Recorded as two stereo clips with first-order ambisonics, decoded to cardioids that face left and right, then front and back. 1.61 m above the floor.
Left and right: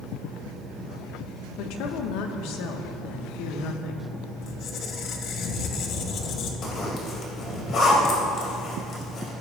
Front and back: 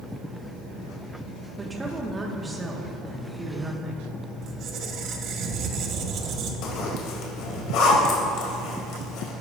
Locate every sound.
1.6 s a woman speaking: 100° left, 1.4 m
4.4 s a squeak: 135° left, 1.1 m
6.6 s a zipper: 35° left, 2.5 m